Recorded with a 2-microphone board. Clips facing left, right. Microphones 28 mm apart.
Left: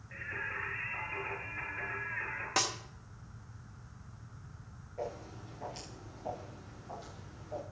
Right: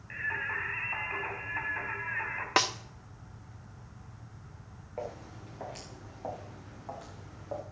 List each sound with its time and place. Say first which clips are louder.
0.1 s singing: right 6 dB; 75° right (ahead or behind), 3.5 m
2.6 s a snare drum: right 6 dB; 35° right (ahead or behind), 0.8 m
5.0 s footsteps: right 1 dB; 65° right (ahead or behind), 6.5 m; by 7.6 s 75° right (ahead or behind), 5 m